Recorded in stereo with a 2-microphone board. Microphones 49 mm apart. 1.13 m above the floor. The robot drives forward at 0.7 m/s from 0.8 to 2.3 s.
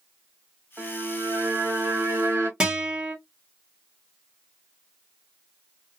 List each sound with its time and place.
0.8 s a violin: 60° right (ahead or behind), 1.8 m; by 2.5 s 80° right, 1.6 m
2.6 s a guitar: 20° right (ahead or behind), 1.3 m